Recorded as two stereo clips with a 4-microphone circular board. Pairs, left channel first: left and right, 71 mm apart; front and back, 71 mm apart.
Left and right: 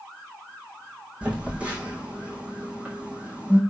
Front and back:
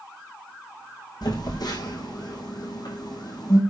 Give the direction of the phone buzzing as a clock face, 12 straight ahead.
1 o'clock.